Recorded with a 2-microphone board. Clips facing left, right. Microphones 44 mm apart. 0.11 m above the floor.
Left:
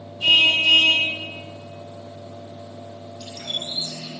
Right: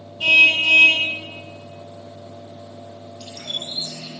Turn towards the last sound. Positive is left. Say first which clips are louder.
# even
turn(degrees=-70)  # may be behind; listen again after turning